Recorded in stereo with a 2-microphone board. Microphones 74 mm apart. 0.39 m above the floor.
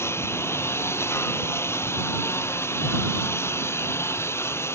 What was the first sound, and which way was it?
A lawn mower, 35° left (ahead or behind).